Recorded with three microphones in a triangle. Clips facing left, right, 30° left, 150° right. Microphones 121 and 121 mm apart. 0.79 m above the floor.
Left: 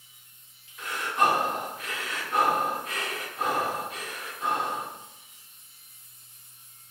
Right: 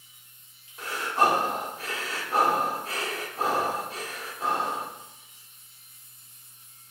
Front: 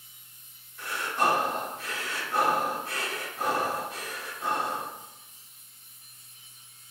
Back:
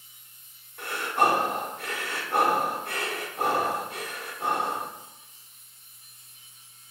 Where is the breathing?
140° right, 0.5 m.